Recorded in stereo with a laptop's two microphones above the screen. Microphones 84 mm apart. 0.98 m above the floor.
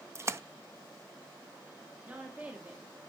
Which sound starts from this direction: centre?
A woman speaking, at 2.0 s.